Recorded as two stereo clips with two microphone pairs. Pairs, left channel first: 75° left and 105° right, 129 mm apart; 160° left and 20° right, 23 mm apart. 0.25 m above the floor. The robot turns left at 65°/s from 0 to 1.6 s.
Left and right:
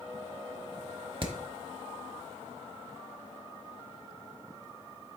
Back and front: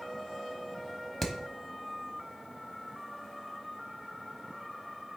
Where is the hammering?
130° right, 0.9 m; by 1.4 s 140° right, 0.9 m.